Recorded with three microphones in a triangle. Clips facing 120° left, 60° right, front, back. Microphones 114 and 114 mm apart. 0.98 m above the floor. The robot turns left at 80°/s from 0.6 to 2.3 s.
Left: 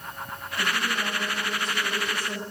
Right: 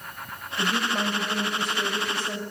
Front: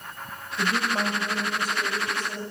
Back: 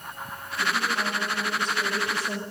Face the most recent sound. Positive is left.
turn(degrees=-135)